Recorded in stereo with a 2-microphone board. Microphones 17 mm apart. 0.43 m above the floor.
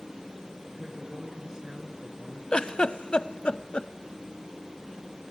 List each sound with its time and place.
0.7 s a woman speaking: 40° right (ahead or behind), 5.5 m; by 2.4 s 35° right (ahead or behind), 4.5 m
2.5 s a giggle: 70° left (ahead or behind), 0.8 m